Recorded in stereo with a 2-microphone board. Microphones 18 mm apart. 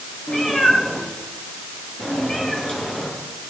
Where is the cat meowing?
85° left, 6.5 m; by 3.1 s 45° left (ahead or behind), 6 m.